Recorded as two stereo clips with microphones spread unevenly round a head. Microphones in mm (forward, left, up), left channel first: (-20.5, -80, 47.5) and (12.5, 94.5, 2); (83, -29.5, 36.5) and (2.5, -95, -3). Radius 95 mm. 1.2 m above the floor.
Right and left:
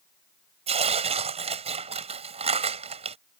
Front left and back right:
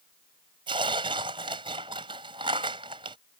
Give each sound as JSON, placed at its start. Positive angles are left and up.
{"t": 0.7, "sound": "tearing paper", "azimuth_deg": 145}